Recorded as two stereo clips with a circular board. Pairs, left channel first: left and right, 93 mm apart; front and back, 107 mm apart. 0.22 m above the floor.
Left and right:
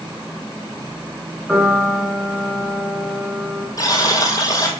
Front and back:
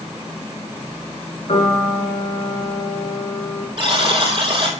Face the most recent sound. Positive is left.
turn(degrees=140)